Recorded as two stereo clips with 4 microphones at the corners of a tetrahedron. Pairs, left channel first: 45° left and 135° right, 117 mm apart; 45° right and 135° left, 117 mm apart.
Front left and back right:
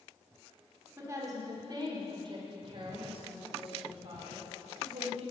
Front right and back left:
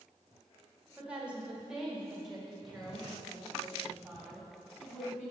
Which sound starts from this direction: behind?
A woman speaking, at 1.0 s.